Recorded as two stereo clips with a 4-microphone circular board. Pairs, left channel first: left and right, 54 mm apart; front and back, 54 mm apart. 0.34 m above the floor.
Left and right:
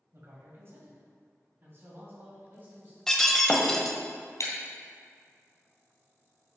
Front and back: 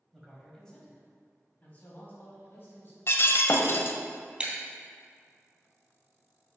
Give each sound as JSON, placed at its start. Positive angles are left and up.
{"t": 0.1, "sound": "a man speaking", "azimuth_deg": -90, "distance_m": 2.5}
{"t": 3.1, "sound": "breaking glass", "azimuth_deg": 10, "distance_m": 1.0}
{"t": 4.4, "sound": "breaking glass", "azimuth_deg": 110, "distance_m": 2.5}